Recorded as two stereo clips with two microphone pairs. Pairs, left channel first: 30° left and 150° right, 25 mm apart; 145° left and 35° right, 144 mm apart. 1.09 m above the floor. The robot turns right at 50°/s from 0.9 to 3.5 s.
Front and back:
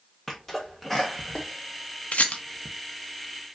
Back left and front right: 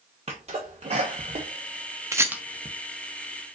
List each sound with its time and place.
0.3 s a sneeze: 60° right, 0.5 m; by 2.7 s 30° left, 0.5 m
2.1 s a rattle: 35° left, 0.5 m; by 2.4 s 50° left, 0.5 m